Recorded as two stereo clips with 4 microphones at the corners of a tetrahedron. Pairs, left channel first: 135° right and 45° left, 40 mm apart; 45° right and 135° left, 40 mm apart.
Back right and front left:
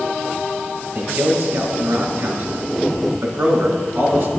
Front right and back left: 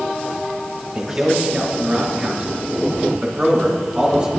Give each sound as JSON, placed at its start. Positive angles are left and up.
{"t": 0.9, "sound": "a man speaking", "azimuth_deg": 65, "distance_m": 1.7}